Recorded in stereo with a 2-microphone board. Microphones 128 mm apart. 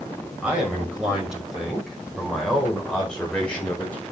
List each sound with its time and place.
0.4 s a man speaking: 5° right (ahead or behind), 6 m; by 4.0 s 15° left (ahead or behind), 4 m